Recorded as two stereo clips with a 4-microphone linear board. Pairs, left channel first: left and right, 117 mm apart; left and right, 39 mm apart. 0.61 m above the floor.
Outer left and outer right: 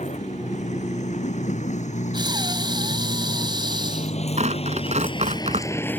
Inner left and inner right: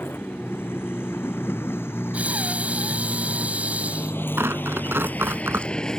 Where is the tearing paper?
80° right.